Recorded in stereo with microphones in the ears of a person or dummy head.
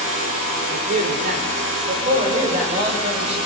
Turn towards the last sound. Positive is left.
turn(degrees=-35)  # may be behind; listen again after turning